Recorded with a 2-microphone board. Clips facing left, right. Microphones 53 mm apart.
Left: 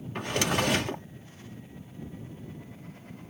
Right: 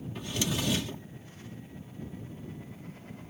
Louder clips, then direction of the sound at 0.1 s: Left 6 dB; 60° left (ahead or behind).